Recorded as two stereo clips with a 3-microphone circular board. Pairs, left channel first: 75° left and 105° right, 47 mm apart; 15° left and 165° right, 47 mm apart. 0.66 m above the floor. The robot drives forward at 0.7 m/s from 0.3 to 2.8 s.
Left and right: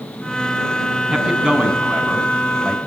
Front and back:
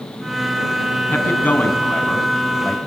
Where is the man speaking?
30° right, 5 m; by 2.8 s 35° right, 4 m.